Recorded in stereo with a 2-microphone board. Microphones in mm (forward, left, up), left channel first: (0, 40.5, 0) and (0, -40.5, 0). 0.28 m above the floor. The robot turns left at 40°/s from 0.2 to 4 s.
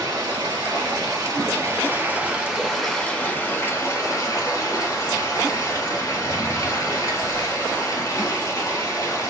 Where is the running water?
80° right, 1.6 m; by 9.3 s 130° left, 1.6 m.